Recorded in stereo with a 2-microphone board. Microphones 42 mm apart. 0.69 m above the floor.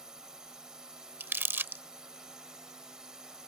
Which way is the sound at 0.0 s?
15° right (ahead or behind).